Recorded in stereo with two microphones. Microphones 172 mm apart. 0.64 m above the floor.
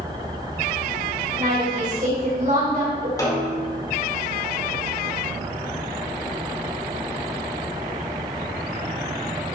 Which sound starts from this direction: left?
A snare drum, at 3.2 s.